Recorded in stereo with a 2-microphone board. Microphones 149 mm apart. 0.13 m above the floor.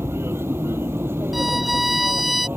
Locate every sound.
0.0 s an aircraft: 15° right (ahead or behind)
1.3 s a violin: centre (ahead or behind)